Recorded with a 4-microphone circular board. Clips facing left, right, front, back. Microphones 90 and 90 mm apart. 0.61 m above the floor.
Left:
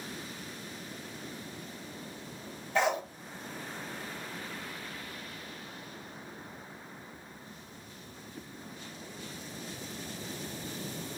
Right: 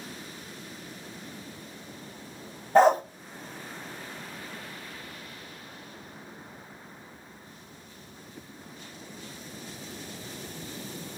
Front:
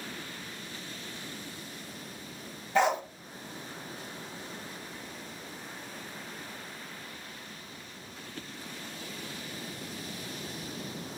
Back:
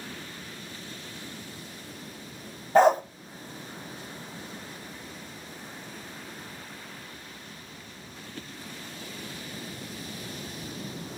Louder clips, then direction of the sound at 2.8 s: Right 10 dB, back 7 dB; 135° right.